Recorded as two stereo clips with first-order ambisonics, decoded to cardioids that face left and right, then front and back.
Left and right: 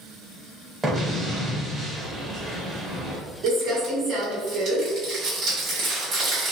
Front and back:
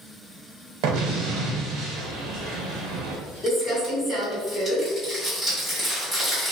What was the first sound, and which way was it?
An explosion, 175° right.